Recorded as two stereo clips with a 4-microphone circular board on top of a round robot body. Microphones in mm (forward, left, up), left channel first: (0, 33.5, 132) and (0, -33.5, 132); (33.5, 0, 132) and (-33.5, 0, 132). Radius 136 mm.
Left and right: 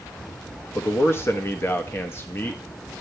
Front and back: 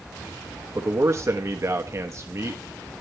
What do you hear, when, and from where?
0.8 s a man speaking: 140° left, 1.1 m